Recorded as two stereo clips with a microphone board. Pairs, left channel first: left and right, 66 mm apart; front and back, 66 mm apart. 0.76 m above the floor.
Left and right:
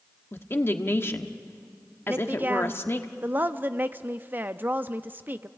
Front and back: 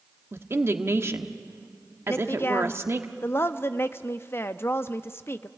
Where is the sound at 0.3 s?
135° left, 1.2 m.